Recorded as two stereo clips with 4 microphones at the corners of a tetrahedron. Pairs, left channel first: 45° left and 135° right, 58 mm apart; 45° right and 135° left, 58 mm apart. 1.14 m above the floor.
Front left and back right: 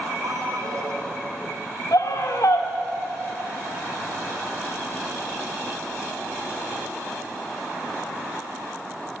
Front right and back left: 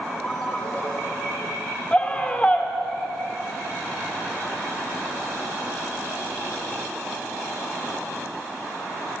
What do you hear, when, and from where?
0.2 s a ringtone: 115° right, 4 m
1.9 s a scream: 25° left, 3.5 m